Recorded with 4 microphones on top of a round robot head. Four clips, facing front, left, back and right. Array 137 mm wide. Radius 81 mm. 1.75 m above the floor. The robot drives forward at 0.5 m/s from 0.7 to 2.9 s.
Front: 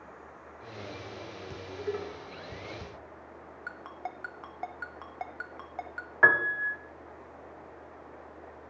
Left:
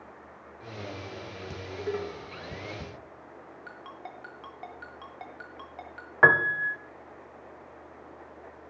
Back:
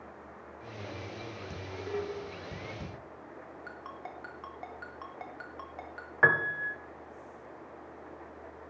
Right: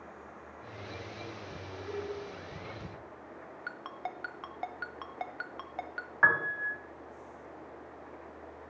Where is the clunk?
No clunk in this recording.